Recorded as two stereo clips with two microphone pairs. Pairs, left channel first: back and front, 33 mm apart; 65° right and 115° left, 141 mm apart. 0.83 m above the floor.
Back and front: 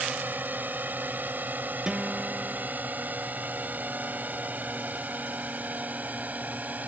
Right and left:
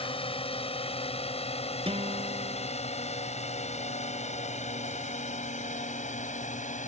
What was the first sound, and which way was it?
A drone, 15° right.